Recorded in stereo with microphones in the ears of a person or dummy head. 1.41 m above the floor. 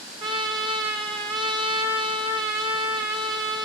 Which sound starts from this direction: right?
A trumpet, at 0.2 s.